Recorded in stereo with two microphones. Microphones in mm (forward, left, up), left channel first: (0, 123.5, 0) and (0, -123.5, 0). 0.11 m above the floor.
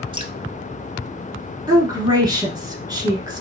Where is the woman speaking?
15° right (ahead or behind), 1.1 m.